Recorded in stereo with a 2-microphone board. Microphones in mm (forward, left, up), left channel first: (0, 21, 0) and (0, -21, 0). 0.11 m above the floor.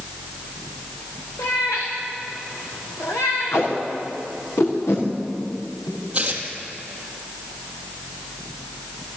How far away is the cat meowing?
About 5 m.